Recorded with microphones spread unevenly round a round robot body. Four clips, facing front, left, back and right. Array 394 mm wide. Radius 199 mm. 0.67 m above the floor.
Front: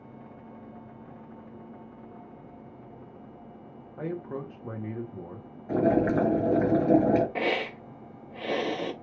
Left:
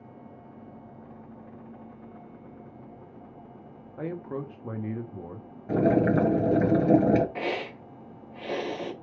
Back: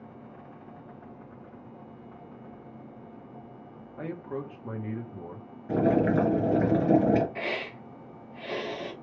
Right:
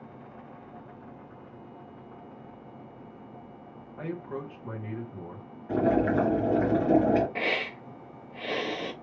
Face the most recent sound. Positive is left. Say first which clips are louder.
# even, front 5 dB
turn(degrees=5)